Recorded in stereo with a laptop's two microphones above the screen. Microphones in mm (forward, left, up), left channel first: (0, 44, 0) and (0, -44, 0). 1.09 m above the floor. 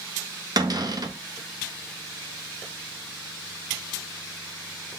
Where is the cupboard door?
50° right (ahead or behind), 0.7 m.